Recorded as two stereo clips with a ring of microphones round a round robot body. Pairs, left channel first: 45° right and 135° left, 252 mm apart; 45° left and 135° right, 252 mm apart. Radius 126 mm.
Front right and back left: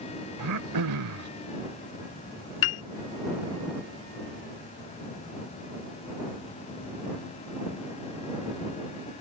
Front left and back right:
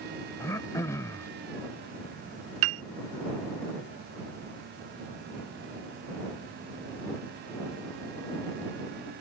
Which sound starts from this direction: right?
A piano, at 2.6 s.